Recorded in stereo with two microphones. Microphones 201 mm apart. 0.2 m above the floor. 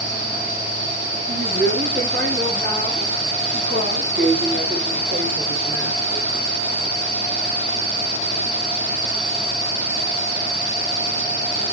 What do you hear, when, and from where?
1.3 s a woman speaking: 55° right (ahead or behind), 5.5 m; by 6.3 s 70° right (ahead or behind), 5 m